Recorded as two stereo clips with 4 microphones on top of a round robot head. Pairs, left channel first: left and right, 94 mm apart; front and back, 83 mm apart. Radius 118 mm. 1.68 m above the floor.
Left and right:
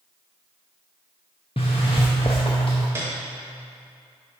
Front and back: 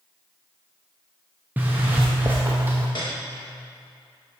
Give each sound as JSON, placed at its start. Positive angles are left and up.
{"t": 1.6, "sound": "a zipper", "azimuth_deg": 125, "distance_m": 0.5}
{"t": 3.0, "sound": "a piano", "azimuth_deg": -40, "distance_m": 0.6}